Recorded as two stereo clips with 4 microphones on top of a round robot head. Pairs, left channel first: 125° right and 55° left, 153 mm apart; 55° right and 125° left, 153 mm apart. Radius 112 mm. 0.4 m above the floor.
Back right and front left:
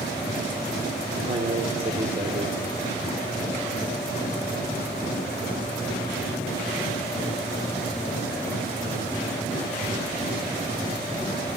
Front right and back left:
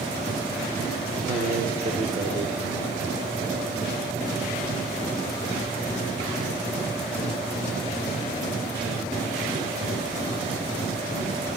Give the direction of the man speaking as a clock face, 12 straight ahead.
9 o'clock.